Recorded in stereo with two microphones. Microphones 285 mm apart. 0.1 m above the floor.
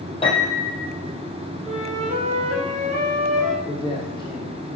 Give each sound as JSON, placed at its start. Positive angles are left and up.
{"t": 0.2, "sound": "a piano", "side_deg": 20, "distance_m": 4.0}
{"t": 1.6, "sound": "a flute", "side_deg": -25, "distance_m": 3.5}
{"t": 3.6, "sound": "a man speaking", "side_deg": 15, "distance_m": 4.5}